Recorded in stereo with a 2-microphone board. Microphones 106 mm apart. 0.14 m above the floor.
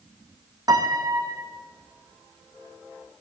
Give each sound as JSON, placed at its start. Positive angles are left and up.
{"t": 0.7, "sound": "a piano", "side_deg": -35, "distance_m": 1.5}